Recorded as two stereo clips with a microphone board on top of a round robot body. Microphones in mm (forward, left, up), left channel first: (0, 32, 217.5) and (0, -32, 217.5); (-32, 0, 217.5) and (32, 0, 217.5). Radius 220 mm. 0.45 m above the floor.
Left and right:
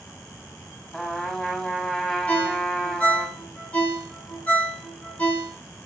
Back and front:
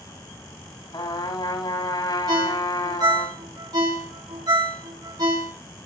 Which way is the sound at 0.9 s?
165° left.